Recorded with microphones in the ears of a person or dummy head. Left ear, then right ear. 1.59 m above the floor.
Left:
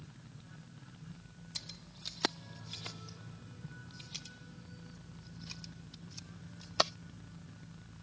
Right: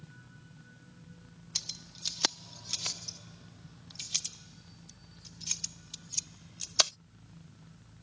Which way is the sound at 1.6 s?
25° right (ahead or behind).